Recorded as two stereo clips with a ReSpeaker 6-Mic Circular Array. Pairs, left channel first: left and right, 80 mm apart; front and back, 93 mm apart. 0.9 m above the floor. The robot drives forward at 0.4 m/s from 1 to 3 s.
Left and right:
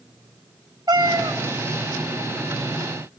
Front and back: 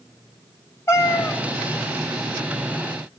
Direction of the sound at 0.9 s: 60° right.